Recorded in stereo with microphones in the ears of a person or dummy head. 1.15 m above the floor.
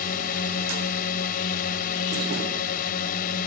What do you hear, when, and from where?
0.0 s a drone: 55° left (ahead or behind)